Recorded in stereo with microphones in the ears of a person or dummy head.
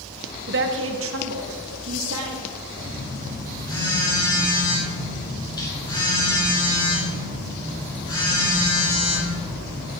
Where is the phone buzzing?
25° left (ahead or behind), 3 m.